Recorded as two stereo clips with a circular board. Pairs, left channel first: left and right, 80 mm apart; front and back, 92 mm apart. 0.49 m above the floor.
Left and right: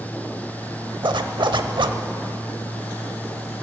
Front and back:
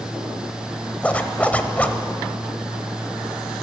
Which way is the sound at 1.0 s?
75° right.